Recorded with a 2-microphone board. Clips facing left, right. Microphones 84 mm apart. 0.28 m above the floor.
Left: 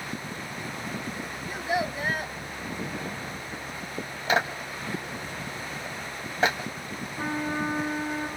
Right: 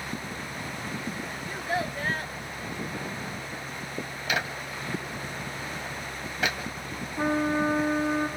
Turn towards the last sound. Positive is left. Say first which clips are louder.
# right 5 dB
turn(degrees=-25)  # may be behind; listen again after turning